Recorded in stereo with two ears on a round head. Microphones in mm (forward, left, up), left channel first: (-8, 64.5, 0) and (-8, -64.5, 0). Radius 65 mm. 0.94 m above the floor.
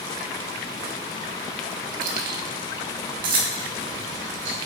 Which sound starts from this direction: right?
Keys jangling, at 2.0 s.